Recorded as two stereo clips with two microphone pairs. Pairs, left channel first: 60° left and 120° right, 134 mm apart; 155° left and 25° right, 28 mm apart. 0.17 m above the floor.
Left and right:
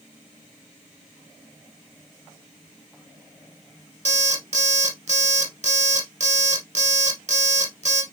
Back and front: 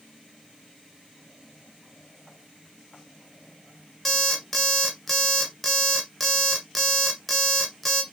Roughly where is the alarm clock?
Behind right.